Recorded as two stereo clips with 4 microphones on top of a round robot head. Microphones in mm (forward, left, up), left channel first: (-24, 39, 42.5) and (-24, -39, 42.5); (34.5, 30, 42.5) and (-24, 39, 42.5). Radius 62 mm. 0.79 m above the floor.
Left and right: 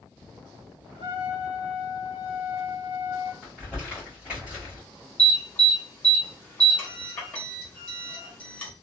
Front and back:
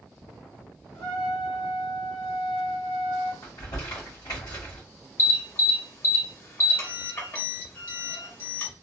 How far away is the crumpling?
About 1.3 m.